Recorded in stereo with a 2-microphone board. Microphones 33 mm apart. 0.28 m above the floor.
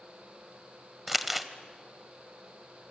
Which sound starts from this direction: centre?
Crumpling, at 1.1 s.